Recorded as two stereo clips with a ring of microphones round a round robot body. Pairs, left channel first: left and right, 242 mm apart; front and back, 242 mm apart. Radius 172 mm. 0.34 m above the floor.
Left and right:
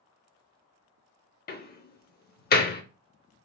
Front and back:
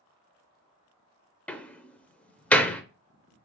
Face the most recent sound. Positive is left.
turn(degrees=80)